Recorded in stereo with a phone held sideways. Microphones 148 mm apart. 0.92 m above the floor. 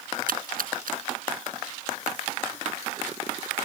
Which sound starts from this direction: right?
A splash, at 0.3 s.